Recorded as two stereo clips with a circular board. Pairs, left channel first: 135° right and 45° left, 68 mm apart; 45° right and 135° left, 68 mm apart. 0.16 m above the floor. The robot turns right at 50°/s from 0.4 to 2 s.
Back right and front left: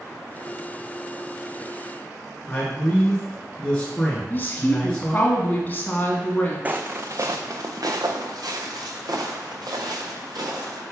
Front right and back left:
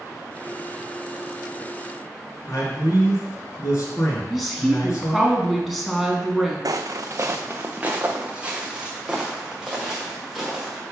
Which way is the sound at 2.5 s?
65° right.